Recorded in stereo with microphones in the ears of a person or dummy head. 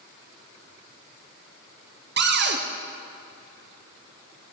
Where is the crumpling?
I don't hear crumpling.